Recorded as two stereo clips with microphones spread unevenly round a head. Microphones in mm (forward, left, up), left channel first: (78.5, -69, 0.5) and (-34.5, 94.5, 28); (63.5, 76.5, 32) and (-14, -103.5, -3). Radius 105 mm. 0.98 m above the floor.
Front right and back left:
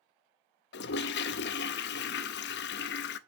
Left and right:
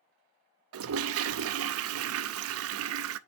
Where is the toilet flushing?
100° right, 0.6 m.